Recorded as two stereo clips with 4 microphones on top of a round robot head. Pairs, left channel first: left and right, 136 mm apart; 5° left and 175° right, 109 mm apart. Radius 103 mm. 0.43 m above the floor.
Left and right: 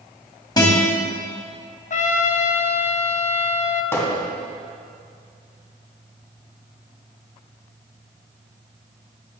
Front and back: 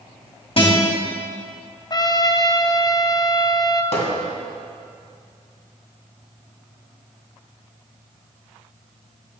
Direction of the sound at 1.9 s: 55° left.